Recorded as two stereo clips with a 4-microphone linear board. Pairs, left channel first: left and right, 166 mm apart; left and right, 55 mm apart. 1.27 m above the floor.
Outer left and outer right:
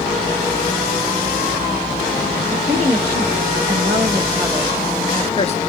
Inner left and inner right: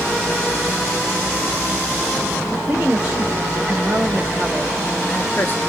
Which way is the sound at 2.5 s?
40° right (ahead or behind).